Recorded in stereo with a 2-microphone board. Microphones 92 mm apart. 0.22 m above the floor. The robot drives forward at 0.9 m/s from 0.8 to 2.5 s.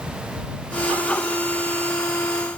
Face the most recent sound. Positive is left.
No sound to turn to.